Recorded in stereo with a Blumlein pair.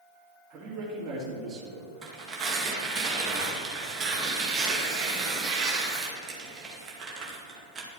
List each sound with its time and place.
0.5 s a man speaking: 20° right, 3.5 m
2.0 s tearing paper: 20° right, 2 m